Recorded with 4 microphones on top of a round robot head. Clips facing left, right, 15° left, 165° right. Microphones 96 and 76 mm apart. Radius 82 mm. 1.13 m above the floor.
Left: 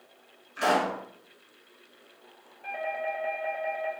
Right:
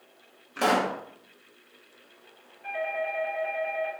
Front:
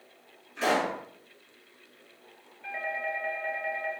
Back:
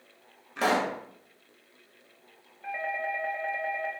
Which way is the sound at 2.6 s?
130° left.